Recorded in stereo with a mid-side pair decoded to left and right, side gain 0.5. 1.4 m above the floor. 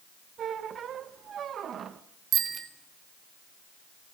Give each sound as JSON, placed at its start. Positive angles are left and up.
{"t": 0.4, "sound": "a squeak", "azimuth_deg": -50, "distance_m": 1.1}
{"t": 2.3, "sound": "a bicycle bell", "azimuth_deg": -60, "distance_m": 3.0}